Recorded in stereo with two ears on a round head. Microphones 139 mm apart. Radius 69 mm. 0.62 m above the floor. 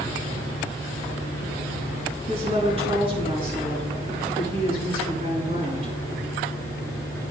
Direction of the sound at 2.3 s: 40° right (ahead or behind).